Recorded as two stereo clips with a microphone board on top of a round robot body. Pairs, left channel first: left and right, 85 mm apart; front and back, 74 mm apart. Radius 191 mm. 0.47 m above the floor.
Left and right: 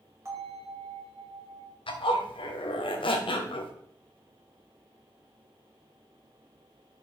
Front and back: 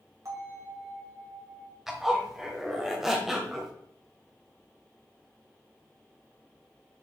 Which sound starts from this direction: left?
A zipper, at 1.9 s.